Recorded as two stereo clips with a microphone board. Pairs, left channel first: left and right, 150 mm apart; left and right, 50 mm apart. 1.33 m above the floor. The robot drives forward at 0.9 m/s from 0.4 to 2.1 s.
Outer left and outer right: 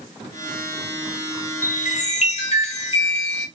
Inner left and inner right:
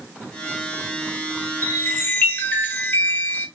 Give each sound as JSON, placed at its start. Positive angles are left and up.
{"t": 1.6, "sound": "a chime", "side_deg": 60, "distance_m": 0.7}